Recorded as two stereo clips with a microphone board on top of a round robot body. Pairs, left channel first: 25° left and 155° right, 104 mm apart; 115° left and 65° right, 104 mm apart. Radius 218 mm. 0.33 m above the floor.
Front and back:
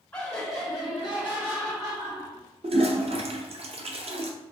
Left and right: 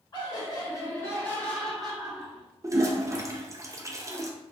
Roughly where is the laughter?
Left.